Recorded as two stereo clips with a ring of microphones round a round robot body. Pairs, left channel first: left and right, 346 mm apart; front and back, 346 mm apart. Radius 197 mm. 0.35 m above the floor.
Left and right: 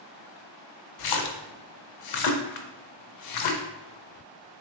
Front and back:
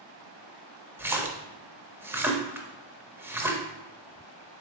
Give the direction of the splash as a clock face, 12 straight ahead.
9 o'clock.